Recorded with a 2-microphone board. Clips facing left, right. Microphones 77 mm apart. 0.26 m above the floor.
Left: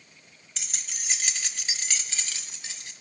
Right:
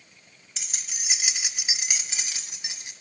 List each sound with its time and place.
0.6 s keys jangling: 5° right (ahead or behind), 1.0 m; by 2.9 s 20° right (ahead or behind), 1.4 m